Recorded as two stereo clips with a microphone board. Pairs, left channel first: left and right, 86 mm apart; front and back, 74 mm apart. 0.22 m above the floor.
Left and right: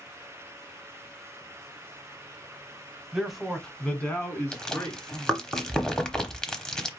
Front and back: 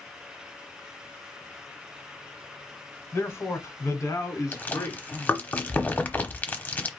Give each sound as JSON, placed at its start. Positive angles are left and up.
{"t": 3.1, "sound": "a man speaking", "azimuth_deg": -10, "distance_m": 1.1}
{"t": 4.5, "sound": "chewing", "azimuth_deg": 20, "distance_m": 0.9}